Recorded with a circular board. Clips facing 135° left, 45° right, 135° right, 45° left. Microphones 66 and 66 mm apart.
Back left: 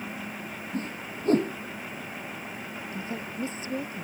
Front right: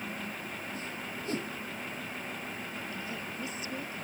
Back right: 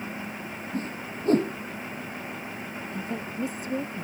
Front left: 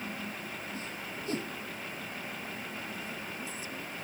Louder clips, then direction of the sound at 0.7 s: Back left 5 dB, back right 7 dB; straight behind.